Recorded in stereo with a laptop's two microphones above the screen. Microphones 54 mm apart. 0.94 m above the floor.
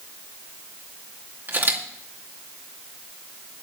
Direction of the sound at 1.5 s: 45° right (ahead or behind).